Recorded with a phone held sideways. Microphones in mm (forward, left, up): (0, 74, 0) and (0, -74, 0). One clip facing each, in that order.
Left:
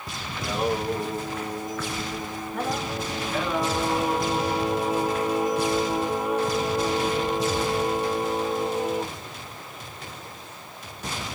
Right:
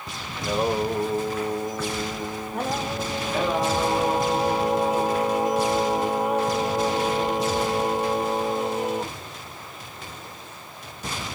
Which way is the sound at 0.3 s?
25° right (ahead or behind).